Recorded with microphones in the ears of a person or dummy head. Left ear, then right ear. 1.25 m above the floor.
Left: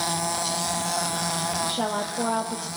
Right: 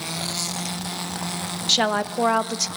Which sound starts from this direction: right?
A woman speaking, at 1.7 s.